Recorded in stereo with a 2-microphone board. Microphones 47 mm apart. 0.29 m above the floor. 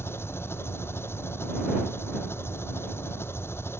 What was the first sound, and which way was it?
An engine running, 65° left (ahead or behind).